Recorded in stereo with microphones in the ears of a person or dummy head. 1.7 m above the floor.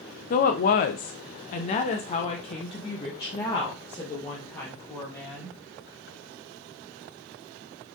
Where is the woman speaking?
35° left (ahead or behind), 0.7 m; by 5.6 s 20° left (ahead or behind), 2.5 m.